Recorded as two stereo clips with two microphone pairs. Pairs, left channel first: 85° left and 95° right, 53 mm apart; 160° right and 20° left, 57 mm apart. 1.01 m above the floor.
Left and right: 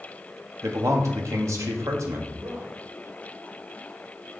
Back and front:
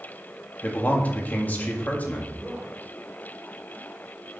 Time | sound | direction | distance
0.6 | a man speaking | 100° right | 1.5 m
2.4 | a man speaking | 65° right | 2.5 m